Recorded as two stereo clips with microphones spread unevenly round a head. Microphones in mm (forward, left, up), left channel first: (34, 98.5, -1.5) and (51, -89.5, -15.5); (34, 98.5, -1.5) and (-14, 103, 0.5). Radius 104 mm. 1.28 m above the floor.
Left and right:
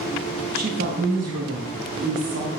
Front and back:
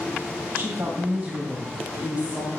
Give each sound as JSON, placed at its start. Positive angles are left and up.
{"t": 0.5, "sound": "a woman speaking", "azimuth_deg": -140, "distance_m": 1.6}